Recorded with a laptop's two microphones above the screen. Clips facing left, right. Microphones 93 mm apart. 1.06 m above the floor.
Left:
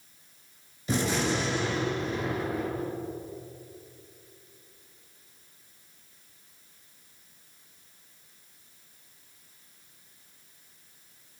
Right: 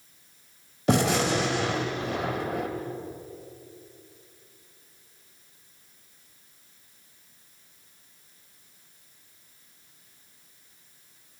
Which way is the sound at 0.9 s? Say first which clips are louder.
Right 5 dB; 80° right.